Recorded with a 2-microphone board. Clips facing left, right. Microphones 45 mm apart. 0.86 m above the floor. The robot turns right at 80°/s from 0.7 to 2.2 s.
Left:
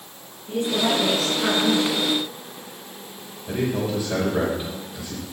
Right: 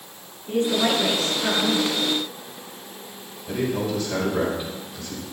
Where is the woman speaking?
40° right, 8.5 m; by 1.9 s 60° left, 8.5 m.